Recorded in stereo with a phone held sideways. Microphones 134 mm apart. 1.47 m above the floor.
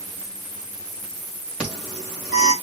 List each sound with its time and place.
1.6 s an alarm: 5° right (ahead or behind), 3.5 m